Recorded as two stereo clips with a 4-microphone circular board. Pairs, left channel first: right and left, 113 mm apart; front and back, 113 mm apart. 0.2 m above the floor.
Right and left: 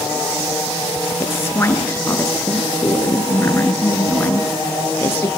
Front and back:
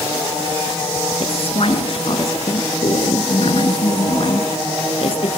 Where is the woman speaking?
20° right, 3.5 m.